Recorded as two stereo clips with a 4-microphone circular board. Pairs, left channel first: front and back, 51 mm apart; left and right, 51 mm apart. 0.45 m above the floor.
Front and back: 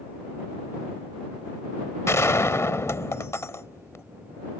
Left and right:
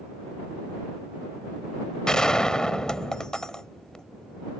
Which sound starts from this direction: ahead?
A gunshot, at 2.1 s.